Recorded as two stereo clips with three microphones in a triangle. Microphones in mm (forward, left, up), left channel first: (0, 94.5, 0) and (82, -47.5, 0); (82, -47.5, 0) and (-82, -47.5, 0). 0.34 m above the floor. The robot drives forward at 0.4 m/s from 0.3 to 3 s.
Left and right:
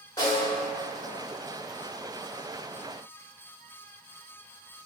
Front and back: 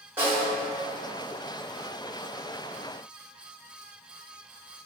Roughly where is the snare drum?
Behind left.